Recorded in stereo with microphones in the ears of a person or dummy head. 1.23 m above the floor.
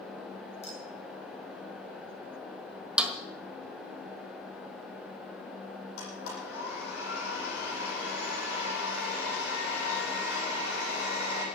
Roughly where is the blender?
Left.